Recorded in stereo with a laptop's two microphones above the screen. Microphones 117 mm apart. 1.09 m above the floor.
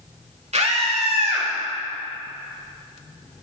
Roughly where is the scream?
Right.